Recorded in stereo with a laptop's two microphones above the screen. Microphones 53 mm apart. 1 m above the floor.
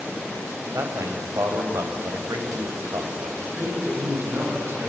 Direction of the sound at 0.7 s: 80° right.